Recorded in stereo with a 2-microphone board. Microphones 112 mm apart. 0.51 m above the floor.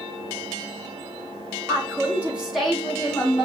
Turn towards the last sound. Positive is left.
turn(degrees=30)  # may be behind; listen again after turning